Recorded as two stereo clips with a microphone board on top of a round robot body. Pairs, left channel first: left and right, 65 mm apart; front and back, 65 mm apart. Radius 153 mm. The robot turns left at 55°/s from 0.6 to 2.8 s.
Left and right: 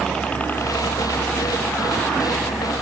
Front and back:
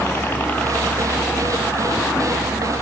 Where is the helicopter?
10° left; by 2.8 s 15° right.